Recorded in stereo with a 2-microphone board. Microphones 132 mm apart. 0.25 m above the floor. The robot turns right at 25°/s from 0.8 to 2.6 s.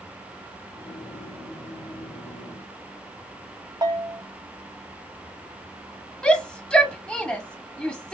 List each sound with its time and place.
3.8 s a bell: 35° right (ahead or behind), 0.9 m
6.2 s a shout: 5° left (ahead or behind), 1.3 m